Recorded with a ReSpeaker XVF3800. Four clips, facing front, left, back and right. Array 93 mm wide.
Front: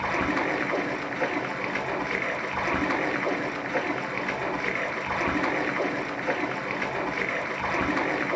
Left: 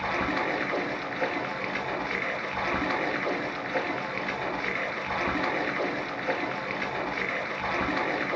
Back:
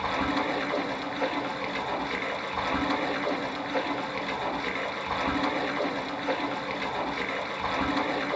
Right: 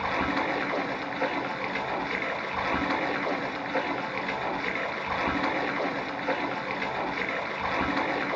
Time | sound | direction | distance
0.0 | running water | 5° left | 1.1 m